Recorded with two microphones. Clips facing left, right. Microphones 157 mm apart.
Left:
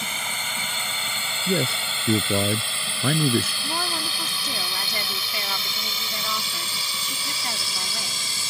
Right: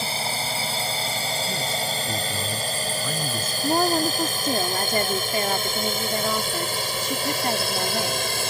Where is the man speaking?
70° left (ahead or behind).